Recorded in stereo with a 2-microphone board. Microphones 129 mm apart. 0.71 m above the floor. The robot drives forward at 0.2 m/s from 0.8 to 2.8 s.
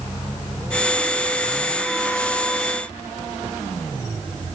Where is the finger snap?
I don't hear a finger snap.